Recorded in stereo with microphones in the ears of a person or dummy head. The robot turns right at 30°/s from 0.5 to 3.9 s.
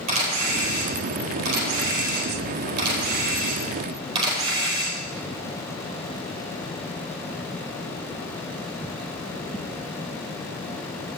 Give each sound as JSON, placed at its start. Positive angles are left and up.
{"t": 0.1, "sound": "a camera shutter", "side_deg": -45, "distance_m": 4.5}